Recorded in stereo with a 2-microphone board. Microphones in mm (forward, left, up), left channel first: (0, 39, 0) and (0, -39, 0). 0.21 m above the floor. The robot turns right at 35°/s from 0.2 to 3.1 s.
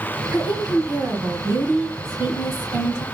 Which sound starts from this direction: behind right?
A woman speaking, at 0.3 s.